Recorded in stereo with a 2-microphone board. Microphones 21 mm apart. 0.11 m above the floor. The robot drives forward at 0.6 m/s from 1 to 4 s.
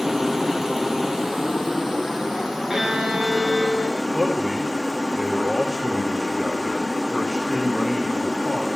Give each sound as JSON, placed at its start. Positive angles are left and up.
{"t": 0.0, "sound": "running water", "side_deg": -15, "distance_m": 1.5}
{"t": 2.7, "sound": "a violin", "side_deg": -30, "distance_m": 1.2}
{"t": 4.1, "sound": "a man speaking", "side_deg": 0, "distance_m": 6.0}